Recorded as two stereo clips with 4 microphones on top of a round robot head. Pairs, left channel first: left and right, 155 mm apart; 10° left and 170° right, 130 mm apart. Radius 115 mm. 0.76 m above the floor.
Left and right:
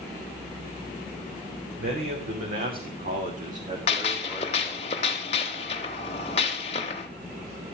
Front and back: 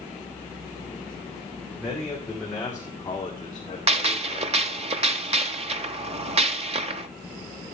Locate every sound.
1.8 s a man speaking: 85° right, 3.5 m; by 4.9 s 15° right, 2.5 m
3.9 s a gunshot: 150° left, 0.8 m